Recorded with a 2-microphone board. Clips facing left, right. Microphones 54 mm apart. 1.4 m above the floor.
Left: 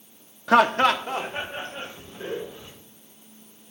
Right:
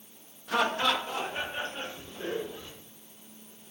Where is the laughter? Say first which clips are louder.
Left 9 dB; 75° left (ahead or behind), 0.6 m; by 2.7 s 20° left (ahead or behind), 2 m.